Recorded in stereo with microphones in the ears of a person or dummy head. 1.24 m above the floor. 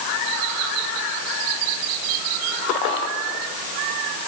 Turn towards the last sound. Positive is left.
No sound to turn to.